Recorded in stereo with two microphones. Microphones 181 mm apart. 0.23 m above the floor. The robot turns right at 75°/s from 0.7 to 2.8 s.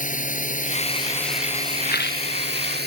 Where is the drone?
130° left; by 2.9 s 70° right.